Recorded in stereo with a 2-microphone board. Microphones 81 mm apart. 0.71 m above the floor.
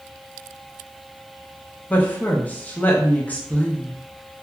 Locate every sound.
1.9 s a woman speaking: 20° left (ahead or behind), 0.6 m